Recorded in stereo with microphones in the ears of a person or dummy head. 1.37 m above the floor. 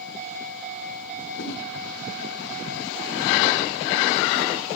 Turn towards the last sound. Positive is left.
turn(degrees=70)  # may be behind; listen again after turning